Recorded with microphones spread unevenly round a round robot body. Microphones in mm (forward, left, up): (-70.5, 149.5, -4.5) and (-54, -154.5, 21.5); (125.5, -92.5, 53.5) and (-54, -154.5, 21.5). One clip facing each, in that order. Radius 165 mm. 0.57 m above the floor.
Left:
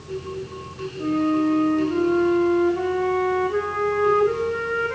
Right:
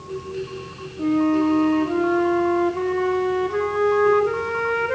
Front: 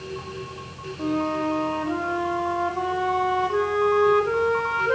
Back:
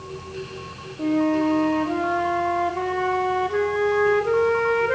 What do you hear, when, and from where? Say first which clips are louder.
1.0 s a flute: right 2 dB, back 5 dB; 100° right, 1.3 m